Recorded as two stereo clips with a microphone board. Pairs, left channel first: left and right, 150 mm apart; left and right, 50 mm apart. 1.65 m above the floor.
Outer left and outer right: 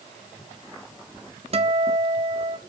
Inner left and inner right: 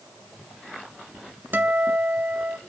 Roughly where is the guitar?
Right.